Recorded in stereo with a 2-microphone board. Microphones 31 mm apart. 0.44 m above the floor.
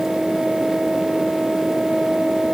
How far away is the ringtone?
I don't hear a ringtone.